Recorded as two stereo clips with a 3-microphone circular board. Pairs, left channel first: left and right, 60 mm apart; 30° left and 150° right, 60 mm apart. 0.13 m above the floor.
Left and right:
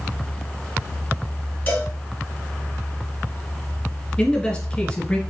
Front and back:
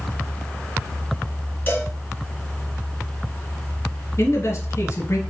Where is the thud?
No thud in this recording.